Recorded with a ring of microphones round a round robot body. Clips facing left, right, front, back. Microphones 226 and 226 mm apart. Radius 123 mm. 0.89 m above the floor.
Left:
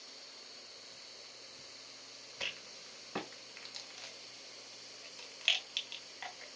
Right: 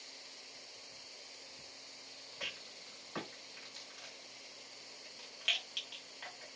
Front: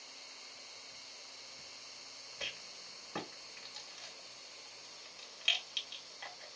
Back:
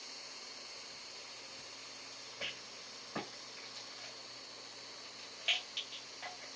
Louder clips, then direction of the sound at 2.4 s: Left 1 dB, even; 55° left.